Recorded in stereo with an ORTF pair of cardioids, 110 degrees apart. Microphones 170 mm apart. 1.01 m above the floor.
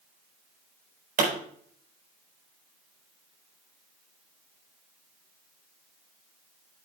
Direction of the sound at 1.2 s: 55° right.